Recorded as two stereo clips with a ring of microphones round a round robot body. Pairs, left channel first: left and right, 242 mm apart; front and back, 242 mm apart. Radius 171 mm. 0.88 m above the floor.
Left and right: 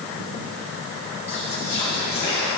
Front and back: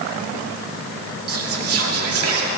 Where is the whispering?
165° left, 2 m.